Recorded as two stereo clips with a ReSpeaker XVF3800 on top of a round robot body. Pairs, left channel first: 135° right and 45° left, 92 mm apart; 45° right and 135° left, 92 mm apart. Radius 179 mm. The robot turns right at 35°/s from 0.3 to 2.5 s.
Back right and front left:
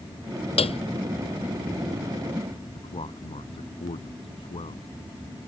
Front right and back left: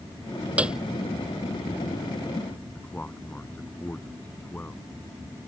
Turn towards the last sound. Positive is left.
turn(degrees=-120)